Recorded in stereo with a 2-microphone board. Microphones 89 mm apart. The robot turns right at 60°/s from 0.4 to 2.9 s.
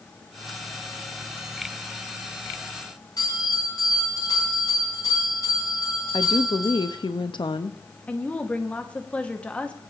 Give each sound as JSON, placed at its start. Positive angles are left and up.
{"t": 3.2, "sound": "a bell", "side_deg": 45, "distance_m": 9.0}
{"t": 6.1, "sound": "a woman speaking", "side_deg": 60, "distance_m": 0.8}
{"t": 8.1, "sound": "a woman speaking", "side_deg": 15, "distance_m": 1.3}